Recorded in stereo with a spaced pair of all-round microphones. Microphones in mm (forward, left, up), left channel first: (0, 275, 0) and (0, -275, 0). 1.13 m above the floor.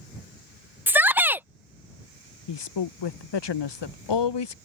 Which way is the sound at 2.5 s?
50° left (ahead or behind).